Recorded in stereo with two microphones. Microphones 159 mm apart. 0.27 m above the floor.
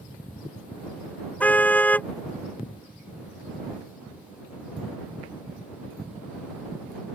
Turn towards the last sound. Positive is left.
turn(degrees=10)  # may be behind; listen again after turning